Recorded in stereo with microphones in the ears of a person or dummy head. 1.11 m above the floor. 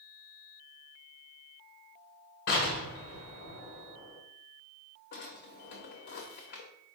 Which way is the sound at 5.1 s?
45° left (ahead or behind).